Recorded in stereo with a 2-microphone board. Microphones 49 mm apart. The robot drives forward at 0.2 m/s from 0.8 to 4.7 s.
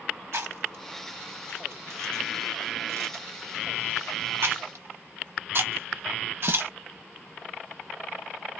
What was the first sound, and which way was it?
Chewing, 65° right (ahead or behind).